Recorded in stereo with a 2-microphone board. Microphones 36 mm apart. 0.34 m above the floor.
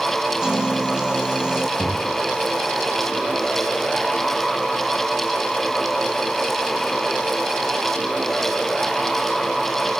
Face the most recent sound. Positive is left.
turn(degrees=35)  # may be behind; listen again after turning